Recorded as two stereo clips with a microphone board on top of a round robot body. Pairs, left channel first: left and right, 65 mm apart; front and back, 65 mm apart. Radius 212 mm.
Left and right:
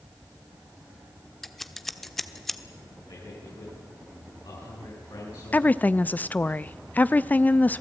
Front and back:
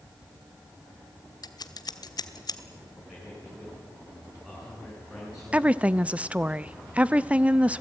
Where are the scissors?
5° left, 1.3 m.